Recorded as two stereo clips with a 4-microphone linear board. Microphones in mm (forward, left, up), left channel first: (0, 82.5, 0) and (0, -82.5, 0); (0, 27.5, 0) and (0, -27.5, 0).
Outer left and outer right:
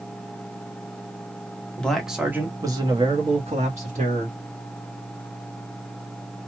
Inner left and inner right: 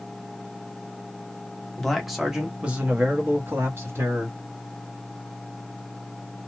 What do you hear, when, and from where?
1.8 s a man speaking: 5° left (ahead or behind), 1.0 m; by 4.4 s 55° right (ahead or behind), 1.5 m